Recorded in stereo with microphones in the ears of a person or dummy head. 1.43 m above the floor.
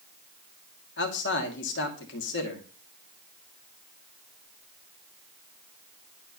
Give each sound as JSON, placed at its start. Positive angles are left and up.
{"t": 1.0, "sound": "a man speaking", "side_deg": 70, "distance_m": 2.5}